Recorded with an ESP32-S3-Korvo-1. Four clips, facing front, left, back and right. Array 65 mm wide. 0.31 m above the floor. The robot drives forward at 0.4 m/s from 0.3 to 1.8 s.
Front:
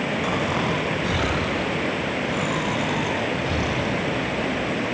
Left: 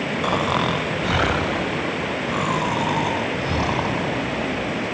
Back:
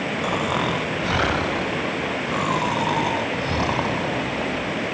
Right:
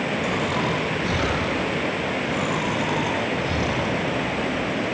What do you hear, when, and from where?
0.2 s snoring: 95° left, 0.6 m; by 4.8 s 145° left, 0.9 m